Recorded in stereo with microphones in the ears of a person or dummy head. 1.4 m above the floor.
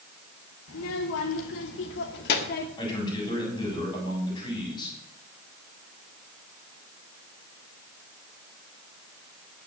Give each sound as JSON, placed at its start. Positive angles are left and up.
{"t": 0.7, "sound": "a child speaking", "side_deg": 80, "distance_m": 2.5}
{"t": 2.8, "sound": "a man speaking", "side_deg": 20, "distance_m": 8.5}